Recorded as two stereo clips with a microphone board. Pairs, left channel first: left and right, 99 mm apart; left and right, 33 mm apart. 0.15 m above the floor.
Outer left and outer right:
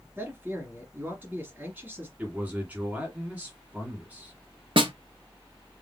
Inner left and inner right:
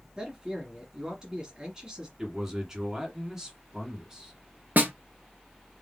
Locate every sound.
0.2 s a man speaking: 20° right (ahead or behind), 1.6 m
2.2 s a man speaking: 15° right (ahead or behind), 1.8 m
4.8 s a snare drum: 60° right (ahead or behind), 0.9 m